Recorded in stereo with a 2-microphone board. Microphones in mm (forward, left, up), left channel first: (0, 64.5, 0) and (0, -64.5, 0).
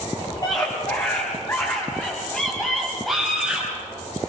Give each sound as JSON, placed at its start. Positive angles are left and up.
{"t": 0.4, "sound": "a scream", "side_deg": 30, "distance_m": 5.5}